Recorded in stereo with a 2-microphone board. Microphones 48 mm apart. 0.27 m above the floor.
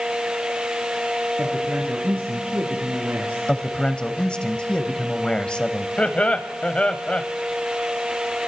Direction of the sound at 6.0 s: 25° left (ahead or behind).